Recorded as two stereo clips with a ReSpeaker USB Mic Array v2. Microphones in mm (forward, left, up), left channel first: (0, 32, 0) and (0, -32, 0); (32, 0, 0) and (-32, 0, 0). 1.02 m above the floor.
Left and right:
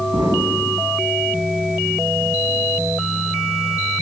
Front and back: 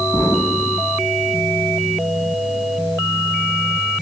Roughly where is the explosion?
Ahead right.